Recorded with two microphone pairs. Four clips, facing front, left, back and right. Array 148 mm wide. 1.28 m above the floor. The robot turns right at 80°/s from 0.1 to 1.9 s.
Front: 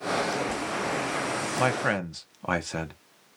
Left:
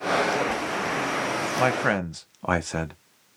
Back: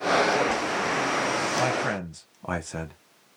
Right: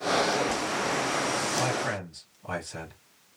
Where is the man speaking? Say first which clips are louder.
Left 6 dB, even; 40° left, 0.7 m; by 2.9 s 70° left, 0.7 m.